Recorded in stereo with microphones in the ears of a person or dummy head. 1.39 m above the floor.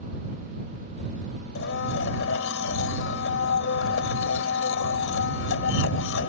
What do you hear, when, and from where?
1.6 s a blender: 85° left